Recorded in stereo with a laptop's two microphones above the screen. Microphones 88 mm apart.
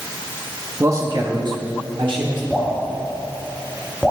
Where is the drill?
No drill in this recording.